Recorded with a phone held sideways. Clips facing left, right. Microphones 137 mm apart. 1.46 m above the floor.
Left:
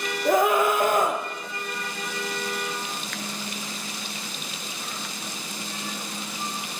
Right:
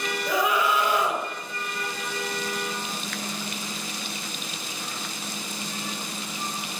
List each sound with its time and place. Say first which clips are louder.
0.2 s a scream: left 5 dB; 50° left (ahead or behind), 1.7 m